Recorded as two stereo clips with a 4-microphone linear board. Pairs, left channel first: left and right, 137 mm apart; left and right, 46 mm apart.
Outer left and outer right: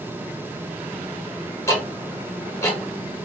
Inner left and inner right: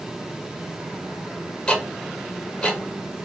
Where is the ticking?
20° left (ahead or behind), 1.3 m.